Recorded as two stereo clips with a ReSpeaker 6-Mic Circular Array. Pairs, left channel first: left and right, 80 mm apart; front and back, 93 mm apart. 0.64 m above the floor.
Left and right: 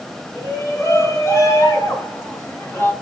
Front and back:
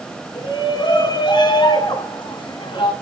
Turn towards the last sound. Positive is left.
turn(degrees=25)